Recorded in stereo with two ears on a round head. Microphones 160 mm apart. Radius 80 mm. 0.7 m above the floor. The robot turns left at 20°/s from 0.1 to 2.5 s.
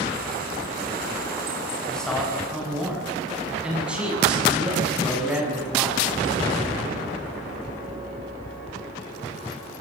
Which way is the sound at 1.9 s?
5° left (ahead or behind).